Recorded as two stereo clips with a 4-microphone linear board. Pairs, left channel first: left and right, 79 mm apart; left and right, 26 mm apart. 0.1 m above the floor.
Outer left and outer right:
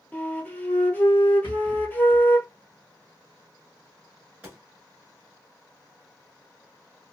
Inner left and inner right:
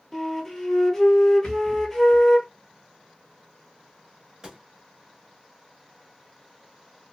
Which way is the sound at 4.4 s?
20° right (ahead or behind).